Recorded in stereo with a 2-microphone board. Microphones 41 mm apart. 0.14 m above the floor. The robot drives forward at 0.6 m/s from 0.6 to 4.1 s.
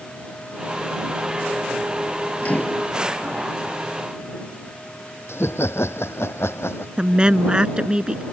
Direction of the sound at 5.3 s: 80° left.